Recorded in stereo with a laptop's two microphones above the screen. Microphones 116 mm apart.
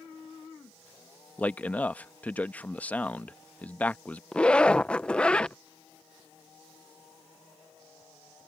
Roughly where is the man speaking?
Centre.